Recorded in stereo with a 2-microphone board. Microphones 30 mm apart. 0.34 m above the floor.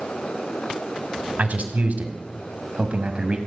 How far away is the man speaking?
About 2.0 m.